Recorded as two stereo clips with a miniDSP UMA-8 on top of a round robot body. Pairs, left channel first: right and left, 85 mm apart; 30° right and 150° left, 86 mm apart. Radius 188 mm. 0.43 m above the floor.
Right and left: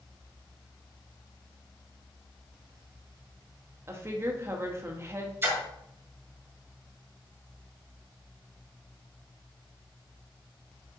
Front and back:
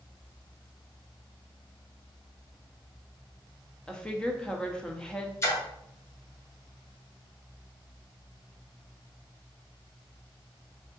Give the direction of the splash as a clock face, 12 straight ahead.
11 o'clock.